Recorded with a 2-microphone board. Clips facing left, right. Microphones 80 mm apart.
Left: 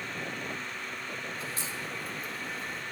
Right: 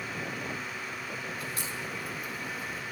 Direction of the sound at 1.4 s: 35° left (ahead or behind).